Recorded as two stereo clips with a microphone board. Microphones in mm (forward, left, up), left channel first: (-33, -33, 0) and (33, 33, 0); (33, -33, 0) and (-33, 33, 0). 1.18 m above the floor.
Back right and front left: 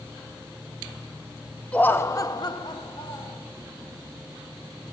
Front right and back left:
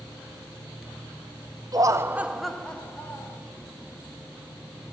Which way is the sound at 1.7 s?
155° left.